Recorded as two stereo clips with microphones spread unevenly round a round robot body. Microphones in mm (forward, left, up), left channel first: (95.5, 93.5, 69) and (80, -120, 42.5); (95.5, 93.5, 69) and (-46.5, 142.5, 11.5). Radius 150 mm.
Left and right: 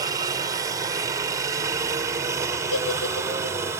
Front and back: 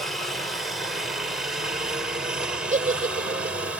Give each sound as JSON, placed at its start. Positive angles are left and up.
{"t": 0.0, "sound": "a helicopter", "azimuth_deg": -140}
{"t": 2.7, "sound": "a giggle", "azimuth_deg": 125}